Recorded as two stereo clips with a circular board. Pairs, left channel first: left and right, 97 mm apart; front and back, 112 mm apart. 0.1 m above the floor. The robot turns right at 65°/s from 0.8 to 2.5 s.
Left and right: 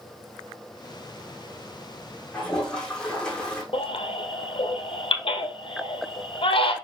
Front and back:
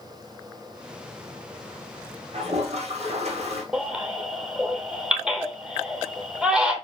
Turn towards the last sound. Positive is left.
turn(degrees=100)